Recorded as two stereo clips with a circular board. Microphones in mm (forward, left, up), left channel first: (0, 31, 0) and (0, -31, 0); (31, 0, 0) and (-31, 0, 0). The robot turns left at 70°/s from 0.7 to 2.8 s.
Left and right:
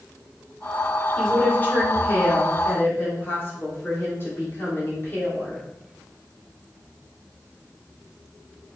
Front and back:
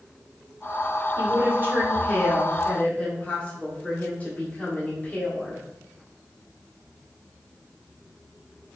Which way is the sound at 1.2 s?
175° left.